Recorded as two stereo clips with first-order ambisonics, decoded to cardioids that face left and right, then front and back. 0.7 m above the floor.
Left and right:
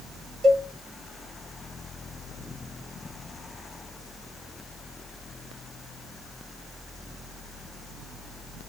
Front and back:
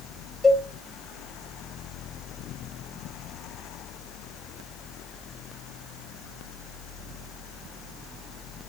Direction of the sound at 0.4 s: 80° right.